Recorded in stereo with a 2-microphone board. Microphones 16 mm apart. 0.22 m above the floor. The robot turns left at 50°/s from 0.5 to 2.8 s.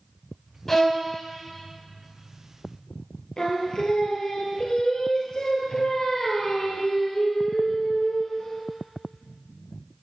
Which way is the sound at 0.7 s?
20° left (ahead or behind).